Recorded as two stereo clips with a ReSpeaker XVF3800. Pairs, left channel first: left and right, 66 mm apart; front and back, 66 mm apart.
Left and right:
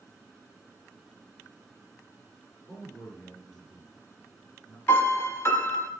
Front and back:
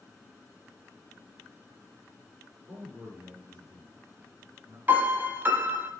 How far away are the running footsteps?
I don't hear running footsteps.